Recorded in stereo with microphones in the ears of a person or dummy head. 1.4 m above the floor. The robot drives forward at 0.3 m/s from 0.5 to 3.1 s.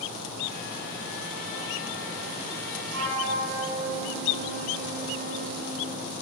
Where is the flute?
90° right, 2 m.